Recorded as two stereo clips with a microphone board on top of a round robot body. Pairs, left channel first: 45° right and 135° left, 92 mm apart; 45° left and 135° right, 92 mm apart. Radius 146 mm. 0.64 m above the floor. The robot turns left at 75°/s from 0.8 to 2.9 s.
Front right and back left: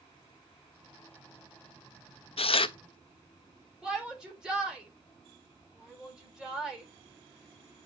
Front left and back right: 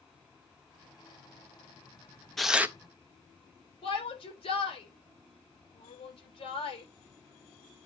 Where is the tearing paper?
40° right, 0.7 m; by 2.8 s 70° right, 0.7 m.